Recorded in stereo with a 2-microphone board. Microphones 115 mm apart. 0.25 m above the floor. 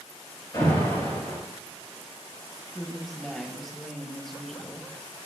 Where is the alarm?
40° left (ahead or behind), 3.5 m.